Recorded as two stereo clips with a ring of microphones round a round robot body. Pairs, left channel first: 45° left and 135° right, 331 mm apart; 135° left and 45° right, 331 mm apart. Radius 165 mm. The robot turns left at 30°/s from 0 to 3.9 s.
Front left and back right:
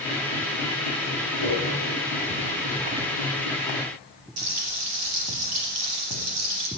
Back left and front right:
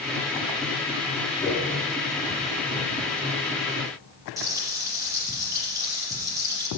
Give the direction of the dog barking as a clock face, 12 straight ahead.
I don't hear a dog barking.